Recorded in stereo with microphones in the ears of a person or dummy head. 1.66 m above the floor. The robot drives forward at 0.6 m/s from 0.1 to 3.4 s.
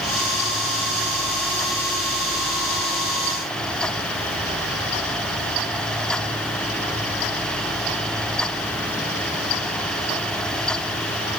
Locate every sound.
Only background noise.